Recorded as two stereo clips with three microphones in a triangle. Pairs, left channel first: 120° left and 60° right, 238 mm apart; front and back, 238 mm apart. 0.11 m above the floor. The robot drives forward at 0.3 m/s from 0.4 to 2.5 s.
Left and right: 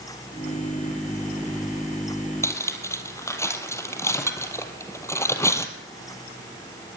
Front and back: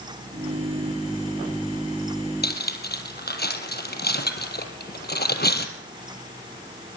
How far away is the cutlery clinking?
About 2 m.